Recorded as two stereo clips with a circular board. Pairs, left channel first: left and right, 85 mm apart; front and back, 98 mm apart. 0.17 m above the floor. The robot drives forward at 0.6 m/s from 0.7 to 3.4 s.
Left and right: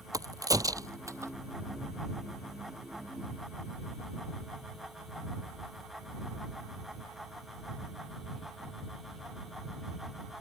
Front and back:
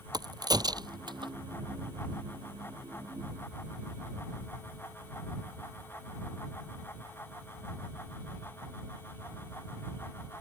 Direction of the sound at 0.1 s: 135° right.